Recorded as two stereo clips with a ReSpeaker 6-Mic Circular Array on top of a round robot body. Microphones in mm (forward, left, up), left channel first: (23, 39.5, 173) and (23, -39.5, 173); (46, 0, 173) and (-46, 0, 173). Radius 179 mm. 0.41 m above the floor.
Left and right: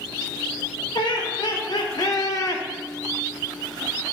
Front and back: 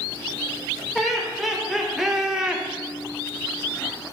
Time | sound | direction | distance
0.9 | laughter | 90° left | 2.5 m